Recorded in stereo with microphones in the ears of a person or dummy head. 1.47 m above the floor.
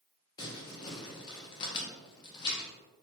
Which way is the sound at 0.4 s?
35° left (ahead or behind).